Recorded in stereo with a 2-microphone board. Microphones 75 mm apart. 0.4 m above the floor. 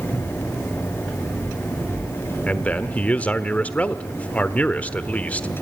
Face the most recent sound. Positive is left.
turn(degrees=20)  # may be behind; listen again after turning